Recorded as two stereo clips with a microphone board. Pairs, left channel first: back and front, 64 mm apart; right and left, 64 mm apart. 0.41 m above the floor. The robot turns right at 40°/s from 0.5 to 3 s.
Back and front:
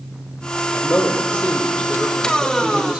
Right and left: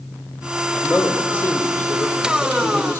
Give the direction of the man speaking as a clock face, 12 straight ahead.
5 o'clock.